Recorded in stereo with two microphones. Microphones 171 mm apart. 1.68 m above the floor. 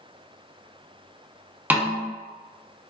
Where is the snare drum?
10° right (ahead or behind), 0.6 m.